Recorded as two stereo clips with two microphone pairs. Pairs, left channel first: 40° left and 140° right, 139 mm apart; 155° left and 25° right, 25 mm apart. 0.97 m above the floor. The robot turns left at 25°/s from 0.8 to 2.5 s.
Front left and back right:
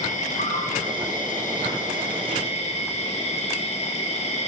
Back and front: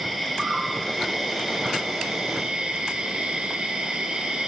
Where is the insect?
50° left, 1.0 m; by 4.5 s 10° left, 1.0 m.